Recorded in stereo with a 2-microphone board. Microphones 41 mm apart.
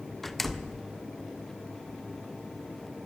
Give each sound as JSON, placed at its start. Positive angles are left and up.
{"t": 0.2, "sound": "a door slam", "side_deg": 5, "distance_m": 1.0}